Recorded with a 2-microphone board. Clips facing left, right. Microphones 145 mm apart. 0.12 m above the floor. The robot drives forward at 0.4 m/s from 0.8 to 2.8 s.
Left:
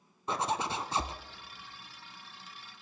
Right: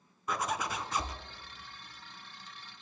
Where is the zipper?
30° left (ahead or behind), 0.6 m.